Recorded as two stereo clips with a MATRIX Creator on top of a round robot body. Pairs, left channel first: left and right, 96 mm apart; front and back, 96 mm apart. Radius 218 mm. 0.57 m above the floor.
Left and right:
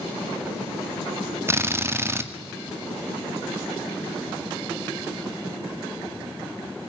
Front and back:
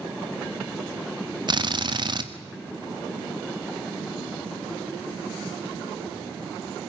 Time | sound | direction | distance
1.5 | a drill | 150° right | 2 m